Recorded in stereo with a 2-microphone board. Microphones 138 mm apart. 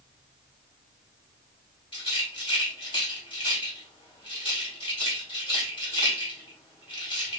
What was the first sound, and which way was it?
A rattle, 40° left (ahead or behind).